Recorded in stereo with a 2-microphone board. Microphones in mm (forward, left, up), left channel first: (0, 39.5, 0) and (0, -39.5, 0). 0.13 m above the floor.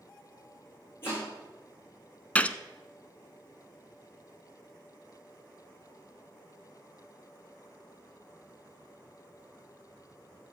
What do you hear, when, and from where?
1.0 s chopping: 30° left (ahead or behind), 7.5 m
2.4 s a gunshot: 20° left (ahead or behind), 0.6 m